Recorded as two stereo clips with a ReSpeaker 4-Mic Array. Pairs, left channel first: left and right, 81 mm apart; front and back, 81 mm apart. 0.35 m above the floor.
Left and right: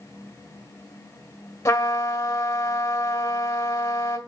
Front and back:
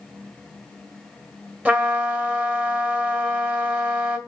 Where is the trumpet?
115° left, 1.5 m.